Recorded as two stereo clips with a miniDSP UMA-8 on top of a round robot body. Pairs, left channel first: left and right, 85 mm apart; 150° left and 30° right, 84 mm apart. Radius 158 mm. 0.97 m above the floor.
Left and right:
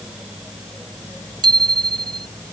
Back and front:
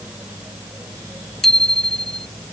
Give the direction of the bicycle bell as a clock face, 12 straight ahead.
4 o'clock.